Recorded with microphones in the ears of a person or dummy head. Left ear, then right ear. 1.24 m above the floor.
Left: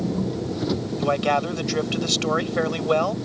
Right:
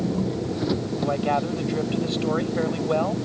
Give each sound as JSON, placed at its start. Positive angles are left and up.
{"t": 0.0, "sound": "an engine running", "side_deg": -10}
{"t": 1.0, "sound": "a man speaking", "side_deg": 45}